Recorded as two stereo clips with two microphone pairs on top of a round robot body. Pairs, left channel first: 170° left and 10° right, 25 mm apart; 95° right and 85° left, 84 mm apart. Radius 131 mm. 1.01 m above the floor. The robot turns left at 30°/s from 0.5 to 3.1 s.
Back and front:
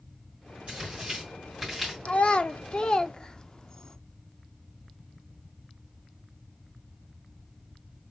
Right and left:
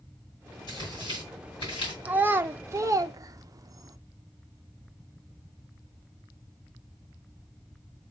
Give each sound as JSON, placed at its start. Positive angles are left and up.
{"t": 0.7, "sound": "tearing paper", "azimuth_deg": -65, "distance_m": 2.5}
{"t": 2.0, "sound": "a child speaking", "azimuth_deg": 145, "distance_m": 0.7}